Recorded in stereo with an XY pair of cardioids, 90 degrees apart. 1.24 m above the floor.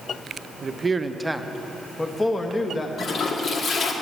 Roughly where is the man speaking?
Ahead right.